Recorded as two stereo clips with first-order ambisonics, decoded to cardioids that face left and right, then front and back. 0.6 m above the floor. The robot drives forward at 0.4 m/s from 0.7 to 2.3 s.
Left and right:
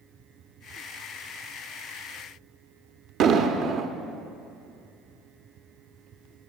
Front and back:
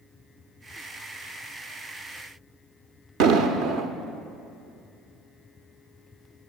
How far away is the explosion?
About 0.8 m.